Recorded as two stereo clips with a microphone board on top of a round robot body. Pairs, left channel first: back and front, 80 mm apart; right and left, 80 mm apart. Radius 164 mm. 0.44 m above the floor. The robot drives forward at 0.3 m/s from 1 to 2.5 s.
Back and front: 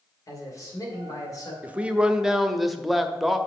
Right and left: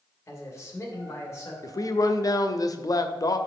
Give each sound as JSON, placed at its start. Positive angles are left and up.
{"t": 0.3, "sound": "a man speaking", "azimuth_deg": -140, "distance_m": 2.5}
{"t": 1.6, "sound": "a man speaking", "azimuth_deg": -70, "distance_m": 1.0}